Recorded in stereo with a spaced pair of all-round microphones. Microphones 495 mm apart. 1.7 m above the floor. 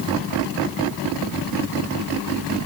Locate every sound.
Only background noise.